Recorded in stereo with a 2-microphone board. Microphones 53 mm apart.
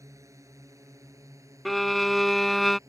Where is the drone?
75° right (ahead or behind).